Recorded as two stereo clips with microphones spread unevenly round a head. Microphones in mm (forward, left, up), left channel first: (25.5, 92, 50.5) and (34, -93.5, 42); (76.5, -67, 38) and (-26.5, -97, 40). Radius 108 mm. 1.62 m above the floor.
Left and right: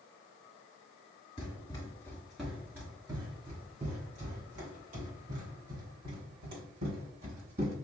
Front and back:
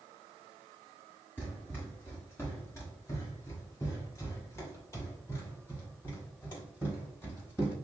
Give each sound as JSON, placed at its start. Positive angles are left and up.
{"t": 1.4, "sound": "running footsteps", "azimuth_deg": 80, "distance_m": 1.7}